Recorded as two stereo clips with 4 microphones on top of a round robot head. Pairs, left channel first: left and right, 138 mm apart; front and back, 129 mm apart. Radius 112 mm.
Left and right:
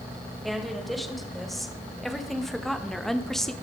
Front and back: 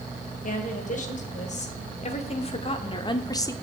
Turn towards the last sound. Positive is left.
turn(degrees=5)